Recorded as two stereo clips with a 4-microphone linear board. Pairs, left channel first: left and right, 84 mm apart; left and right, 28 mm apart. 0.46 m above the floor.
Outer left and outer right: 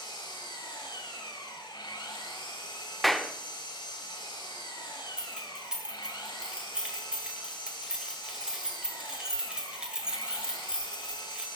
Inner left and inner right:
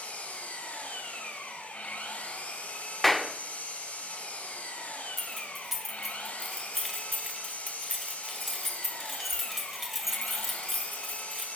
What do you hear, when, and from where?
0.0 s an engine running: 70° left (ahead or behind), 1.8 m
3.0 s a clap: centre (ahead or behind), 0.5 m
5.2 s keys jangling: 10° right (ahead or behind), 1.5 m